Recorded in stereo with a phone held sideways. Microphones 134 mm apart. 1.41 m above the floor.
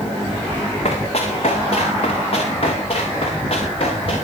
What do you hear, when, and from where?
0.8 s running footsteps: 50° left (ahead or behind), 6 m; by 4.2 s 45° left (ahead or behind), 10.5 m